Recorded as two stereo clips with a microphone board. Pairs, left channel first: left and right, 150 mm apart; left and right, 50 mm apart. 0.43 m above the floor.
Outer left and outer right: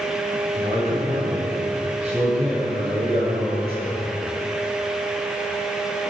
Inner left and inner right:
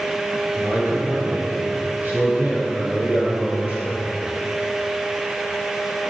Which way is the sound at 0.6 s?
50° right (ahead or behind).